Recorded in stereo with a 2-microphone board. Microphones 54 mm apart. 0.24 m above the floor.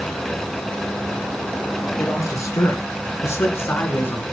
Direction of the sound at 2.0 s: 70° left (ahead or behind).